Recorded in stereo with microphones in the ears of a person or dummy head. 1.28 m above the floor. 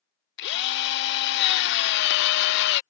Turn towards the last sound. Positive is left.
turn(degrees=55)  # may be behind; listen again after turning